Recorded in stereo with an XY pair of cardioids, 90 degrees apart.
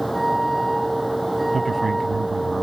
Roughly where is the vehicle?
Ahead.